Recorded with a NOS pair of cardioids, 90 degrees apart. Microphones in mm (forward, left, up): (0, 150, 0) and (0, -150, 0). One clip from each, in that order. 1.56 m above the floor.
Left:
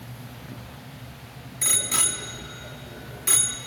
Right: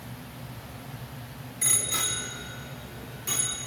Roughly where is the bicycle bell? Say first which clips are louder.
Left 3 dB; ahead left.